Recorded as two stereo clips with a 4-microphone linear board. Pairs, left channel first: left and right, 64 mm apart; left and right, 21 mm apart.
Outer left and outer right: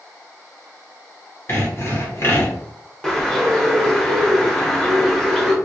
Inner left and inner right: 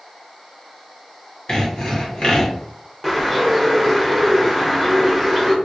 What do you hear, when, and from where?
1.5 s sawing: 40° left (ahead or behind), 1.1 m
3.0 s a bird: 10° left (ahead or behind), 0.8 m